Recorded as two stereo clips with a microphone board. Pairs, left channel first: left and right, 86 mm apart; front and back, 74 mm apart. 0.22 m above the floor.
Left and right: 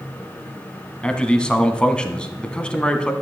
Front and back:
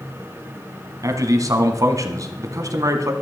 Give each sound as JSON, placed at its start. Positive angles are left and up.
{"t": 1.0, "sound": "a man speaking", "azimuth_deg": 165, "distance_m": 1.5}